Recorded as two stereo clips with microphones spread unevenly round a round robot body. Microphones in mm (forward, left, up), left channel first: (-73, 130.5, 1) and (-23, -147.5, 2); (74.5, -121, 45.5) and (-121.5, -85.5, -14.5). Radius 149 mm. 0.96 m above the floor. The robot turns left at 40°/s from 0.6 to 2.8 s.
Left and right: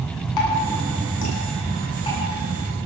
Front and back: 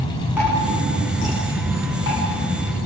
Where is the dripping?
85° left, 9.5 m; by 2.2 s 20° left, 9.5 m.